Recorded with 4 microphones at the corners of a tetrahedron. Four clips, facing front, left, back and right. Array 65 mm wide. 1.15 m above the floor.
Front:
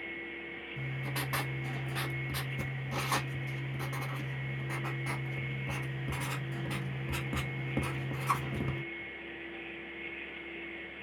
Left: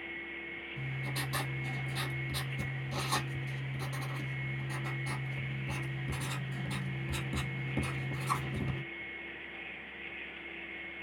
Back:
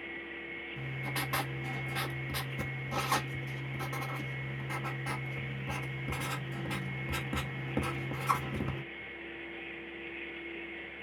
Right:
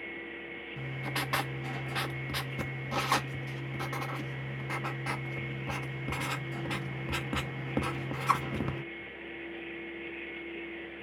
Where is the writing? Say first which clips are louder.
Right 4 dB, even; 90° right, 1.0 m.